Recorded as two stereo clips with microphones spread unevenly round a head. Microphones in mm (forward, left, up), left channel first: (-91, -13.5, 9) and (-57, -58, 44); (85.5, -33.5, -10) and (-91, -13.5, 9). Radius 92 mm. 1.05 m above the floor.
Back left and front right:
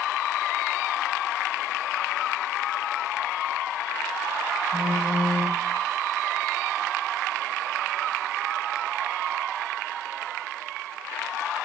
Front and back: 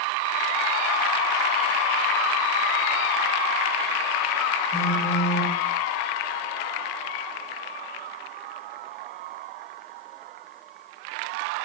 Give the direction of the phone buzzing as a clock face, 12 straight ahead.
10 o'clock.